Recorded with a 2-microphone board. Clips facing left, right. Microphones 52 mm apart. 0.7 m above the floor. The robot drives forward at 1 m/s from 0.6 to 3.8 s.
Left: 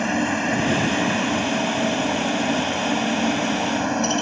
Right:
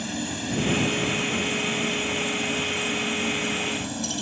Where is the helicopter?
55° left (ahead or behind).